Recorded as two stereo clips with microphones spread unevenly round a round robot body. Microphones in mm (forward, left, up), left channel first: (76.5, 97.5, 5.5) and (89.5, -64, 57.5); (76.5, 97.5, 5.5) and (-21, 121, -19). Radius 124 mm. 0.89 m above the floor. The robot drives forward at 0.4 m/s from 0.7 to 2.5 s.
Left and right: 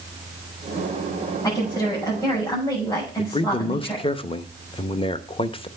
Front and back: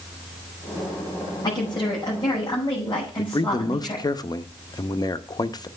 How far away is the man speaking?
About 0.7 m.